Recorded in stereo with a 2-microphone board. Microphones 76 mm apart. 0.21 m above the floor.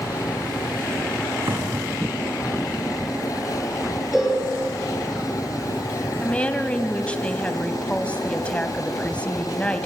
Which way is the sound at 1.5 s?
50° right (ahead or behind).